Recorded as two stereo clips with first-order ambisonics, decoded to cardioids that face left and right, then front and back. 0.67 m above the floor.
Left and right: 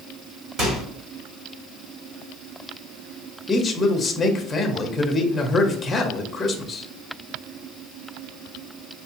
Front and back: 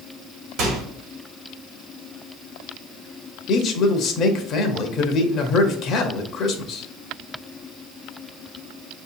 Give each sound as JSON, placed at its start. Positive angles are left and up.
{"t": 0.6, "sound": "a microwave", "azimuth_deg": -145, "distance_m": 1.7}
{"t": 3.5, "sound": "a man speaking", "azimuth_deg": 20, "distance_m": 0.7}